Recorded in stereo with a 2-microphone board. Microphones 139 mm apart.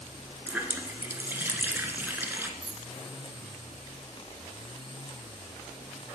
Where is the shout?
I don't hear a shout.